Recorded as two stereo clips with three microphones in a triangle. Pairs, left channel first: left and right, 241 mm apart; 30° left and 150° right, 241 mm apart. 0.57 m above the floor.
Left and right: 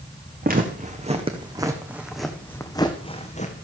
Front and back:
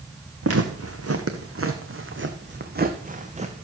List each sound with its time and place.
0.4 s footsteps: 140° right, 2 m; by 3.6 s 145° left, 1.9 m